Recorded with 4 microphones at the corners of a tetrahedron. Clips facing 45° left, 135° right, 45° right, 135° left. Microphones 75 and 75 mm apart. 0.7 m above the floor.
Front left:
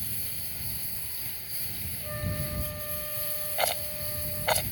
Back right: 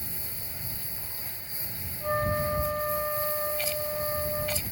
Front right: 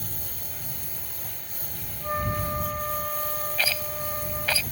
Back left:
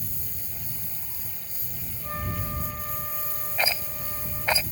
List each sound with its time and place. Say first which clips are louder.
0.0 s a lawn mower: back right 2 dB, front right 2 dB; 65° right
2.0 s a flute: back right 10 dB, front right 6 dB; 110° right
3.6 s a rattle: back right 1 dB, back left 4 dB; 65° left